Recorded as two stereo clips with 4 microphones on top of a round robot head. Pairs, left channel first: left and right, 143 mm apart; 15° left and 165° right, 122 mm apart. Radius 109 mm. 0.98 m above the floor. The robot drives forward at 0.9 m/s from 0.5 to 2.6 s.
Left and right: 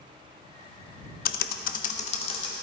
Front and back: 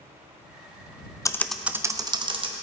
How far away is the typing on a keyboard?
About 0.6 m.